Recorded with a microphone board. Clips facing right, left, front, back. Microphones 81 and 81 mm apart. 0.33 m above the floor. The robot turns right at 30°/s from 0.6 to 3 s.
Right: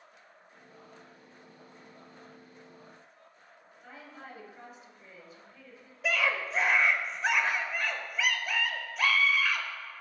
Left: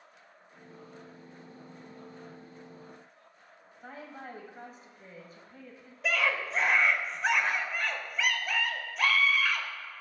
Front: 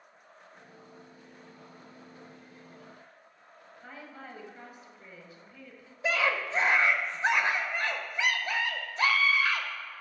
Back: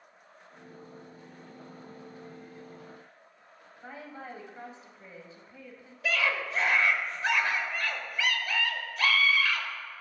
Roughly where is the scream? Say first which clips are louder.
Even, front 1 dB; ahead.